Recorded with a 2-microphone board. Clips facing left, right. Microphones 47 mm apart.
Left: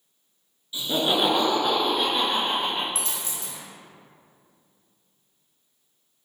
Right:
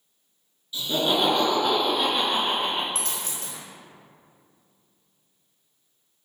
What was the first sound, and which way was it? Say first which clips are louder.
Laughter: even; 15° left (ahead or behind).